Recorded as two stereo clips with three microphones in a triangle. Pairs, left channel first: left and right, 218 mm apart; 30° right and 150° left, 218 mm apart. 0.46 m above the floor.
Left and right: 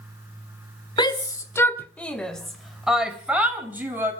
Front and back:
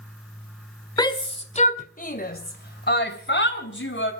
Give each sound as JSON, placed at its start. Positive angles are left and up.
{"t": 1.0, "sound": "a shout", "azimuth_deg": 30, "distance_m": 1.7}